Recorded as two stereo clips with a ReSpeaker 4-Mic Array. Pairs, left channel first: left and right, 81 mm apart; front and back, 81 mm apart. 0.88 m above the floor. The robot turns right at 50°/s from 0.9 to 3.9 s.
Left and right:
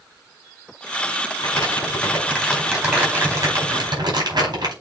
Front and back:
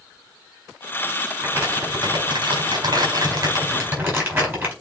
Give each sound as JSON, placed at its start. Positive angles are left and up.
{"t": 1.4, "sound": "crumpling", "azimuth_deg": 115, "distance_m": 5.0}